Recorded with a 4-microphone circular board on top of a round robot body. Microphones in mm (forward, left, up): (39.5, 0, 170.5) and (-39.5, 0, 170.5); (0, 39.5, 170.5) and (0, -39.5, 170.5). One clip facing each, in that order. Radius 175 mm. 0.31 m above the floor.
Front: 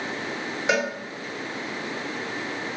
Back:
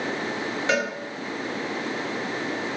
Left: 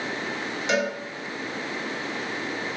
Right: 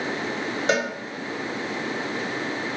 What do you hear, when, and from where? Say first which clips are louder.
0.7 s a cowbell: front 1 dB, right 1 dB; 70° right, 1.8 m